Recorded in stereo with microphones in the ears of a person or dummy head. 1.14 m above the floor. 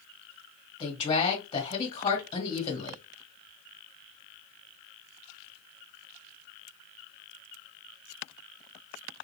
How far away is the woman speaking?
About 1.5 m.